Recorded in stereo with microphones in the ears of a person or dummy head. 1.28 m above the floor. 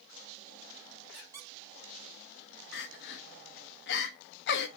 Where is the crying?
65° left (ahead or behind), 1.0 m.